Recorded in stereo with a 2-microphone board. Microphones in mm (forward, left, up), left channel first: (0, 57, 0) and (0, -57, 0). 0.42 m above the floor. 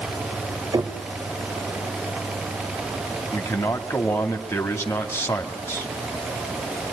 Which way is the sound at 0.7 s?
35° right (ahead or behind).